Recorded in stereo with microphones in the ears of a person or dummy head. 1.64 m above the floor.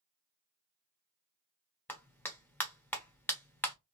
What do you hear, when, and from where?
1.9 s a clap: 5° left (ahead or behind), 1.0 m